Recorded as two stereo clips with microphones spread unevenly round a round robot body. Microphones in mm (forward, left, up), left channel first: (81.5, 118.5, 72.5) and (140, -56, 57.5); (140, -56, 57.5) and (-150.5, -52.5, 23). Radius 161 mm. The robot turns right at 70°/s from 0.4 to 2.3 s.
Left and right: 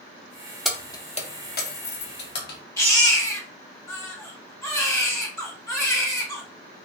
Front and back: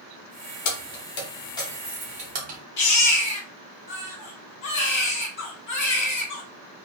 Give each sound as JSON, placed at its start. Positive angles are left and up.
{"t": 0.7, "sound": "keys jangling", "azimuth_deg": 15, "distance_m": 0.7}
{"t": 2.8, "sound": "a baby crying", "azimuth_deg": 30, "distance_m": 1.6}